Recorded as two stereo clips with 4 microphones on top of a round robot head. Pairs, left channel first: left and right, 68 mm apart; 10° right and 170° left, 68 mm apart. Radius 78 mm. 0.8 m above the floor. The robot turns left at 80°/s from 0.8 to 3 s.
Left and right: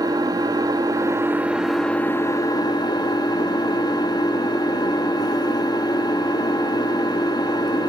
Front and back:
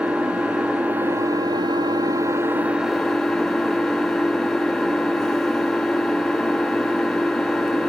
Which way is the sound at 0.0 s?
110° right.